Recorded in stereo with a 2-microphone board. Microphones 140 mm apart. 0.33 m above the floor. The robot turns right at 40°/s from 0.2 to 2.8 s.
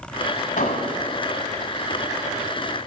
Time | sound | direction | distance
0.6 | an explosion | 70° left (ahead or behind) | 1.1 m